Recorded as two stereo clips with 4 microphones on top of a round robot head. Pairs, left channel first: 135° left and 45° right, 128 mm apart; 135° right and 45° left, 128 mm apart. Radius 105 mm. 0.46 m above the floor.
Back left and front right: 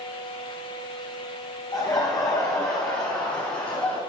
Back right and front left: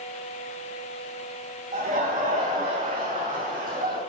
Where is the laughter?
70° left, 4.5 m; by 4.0 s 60° left, 7 m.